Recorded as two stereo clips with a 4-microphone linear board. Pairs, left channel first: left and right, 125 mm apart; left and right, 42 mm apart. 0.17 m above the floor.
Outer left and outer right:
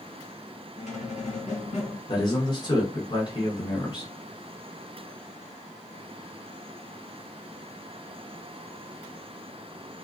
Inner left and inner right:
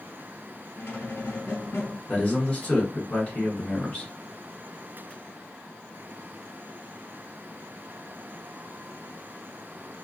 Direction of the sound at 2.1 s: 35° left (ahead or behind).